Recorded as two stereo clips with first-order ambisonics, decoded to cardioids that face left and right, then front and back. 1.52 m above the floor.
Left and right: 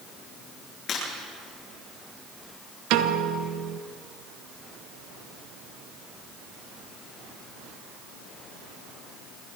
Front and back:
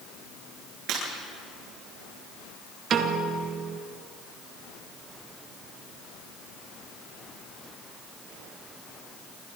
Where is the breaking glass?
145° left, 9 m.